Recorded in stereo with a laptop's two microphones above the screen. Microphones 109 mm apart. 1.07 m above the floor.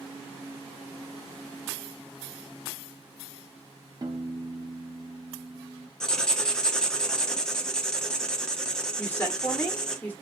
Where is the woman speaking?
15° left (ahead or behind), 1.3 m.